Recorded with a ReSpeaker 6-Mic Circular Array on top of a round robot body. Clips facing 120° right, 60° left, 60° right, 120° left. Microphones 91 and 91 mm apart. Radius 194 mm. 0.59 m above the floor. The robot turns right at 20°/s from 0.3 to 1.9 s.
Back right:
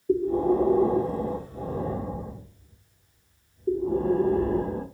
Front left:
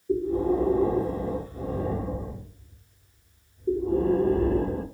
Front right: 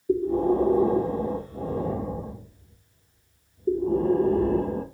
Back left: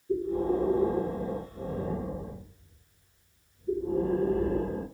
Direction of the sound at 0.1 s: 85° right.